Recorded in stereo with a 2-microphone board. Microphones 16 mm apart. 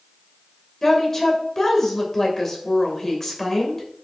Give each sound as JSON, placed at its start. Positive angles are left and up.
{"t": 0.8, "sound": "a woman speaking", "side_deg": 20, "distance_m": 2.0}